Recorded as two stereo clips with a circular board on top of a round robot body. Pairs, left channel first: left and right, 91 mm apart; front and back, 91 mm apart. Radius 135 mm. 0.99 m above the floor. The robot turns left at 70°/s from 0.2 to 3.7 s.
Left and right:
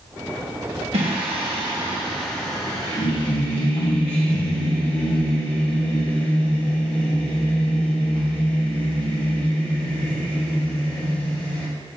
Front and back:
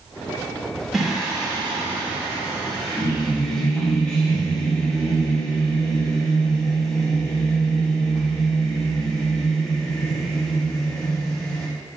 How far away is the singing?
About 1.5 m.